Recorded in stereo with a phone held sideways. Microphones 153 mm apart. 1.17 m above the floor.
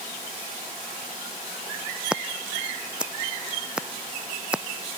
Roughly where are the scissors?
Centre.